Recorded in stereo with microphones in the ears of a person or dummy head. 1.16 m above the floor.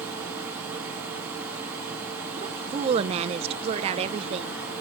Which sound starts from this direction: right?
A woman speaking, at 2.4 s.